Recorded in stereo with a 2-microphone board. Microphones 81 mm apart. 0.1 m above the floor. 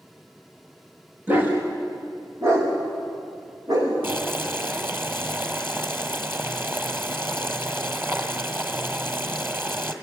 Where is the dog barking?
25° right (ahead or behind), 6 m; by 3.9 s 45° right (ahead or behind), 7.5 m.